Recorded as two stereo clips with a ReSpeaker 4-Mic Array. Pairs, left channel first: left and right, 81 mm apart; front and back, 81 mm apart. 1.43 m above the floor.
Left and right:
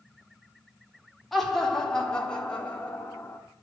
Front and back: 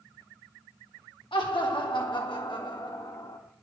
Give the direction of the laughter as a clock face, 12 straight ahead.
12 o'clock.